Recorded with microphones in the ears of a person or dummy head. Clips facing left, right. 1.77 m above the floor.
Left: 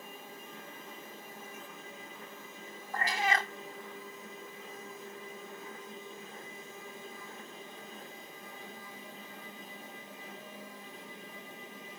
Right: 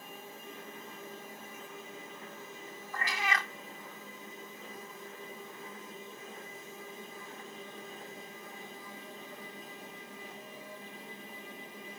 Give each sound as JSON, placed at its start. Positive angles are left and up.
{"t": 2.9, "sound": "a cat meowing", "side_deg": 30}